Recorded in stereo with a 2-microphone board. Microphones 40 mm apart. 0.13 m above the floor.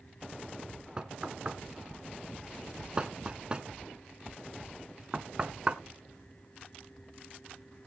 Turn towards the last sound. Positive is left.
turn(degrees=-25)  # may be behind; listen again after turning